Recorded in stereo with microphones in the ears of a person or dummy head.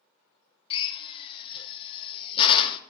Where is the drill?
30° left (ahead or behind), 0.8 m.